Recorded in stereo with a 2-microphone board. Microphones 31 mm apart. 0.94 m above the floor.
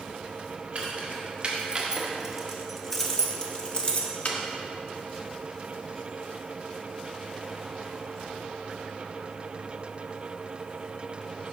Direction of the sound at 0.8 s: 40° right (ahead or behind).